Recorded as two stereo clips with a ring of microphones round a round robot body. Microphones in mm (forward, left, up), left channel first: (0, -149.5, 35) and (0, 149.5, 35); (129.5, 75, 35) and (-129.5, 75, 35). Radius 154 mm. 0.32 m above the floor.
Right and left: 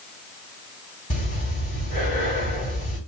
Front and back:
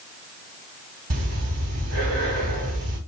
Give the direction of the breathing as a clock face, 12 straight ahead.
5 o'clock.